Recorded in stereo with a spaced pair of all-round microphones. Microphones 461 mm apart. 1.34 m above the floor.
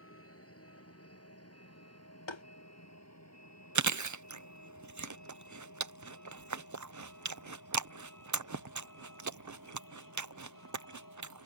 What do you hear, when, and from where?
0.0 s a vehicle: 30° left (ahead or behind); by 11.5 s 45° left (ahead or behind)
2.3 s tapping: 70° left (ahead or behind)
3.8 s chewing: 40° right (ahead or behind)